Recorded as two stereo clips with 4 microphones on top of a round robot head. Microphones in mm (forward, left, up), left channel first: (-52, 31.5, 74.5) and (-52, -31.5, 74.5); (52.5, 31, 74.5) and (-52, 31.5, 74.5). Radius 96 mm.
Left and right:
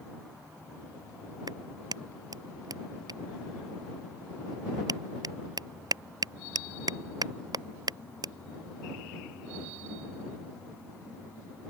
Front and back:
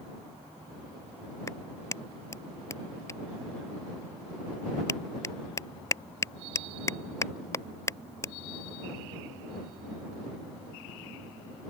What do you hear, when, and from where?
1.5 s a clap: 65° right